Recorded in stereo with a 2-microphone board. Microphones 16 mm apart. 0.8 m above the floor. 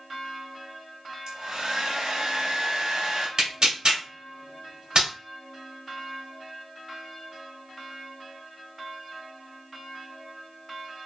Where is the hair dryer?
50° right (ahead or behind), 0.9 m.